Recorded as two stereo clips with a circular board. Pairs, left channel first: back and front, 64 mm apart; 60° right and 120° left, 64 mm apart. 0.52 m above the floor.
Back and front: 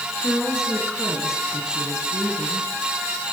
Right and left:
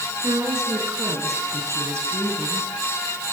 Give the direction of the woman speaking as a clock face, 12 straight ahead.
9 o'clock.